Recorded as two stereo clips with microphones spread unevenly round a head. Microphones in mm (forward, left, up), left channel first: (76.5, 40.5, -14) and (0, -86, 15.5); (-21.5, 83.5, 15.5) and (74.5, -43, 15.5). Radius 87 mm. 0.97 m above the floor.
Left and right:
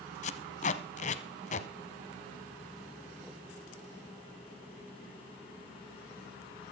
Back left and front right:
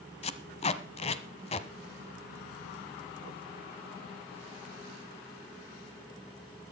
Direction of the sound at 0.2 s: 95° left.